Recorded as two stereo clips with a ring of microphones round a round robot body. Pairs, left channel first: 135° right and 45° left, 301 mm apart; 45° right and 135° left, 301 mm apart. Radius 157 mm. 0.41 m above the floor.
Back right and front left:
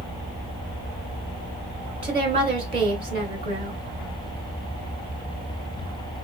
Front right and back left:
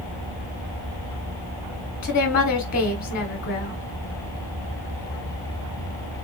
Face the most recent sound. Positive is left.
turn(degrees=-10)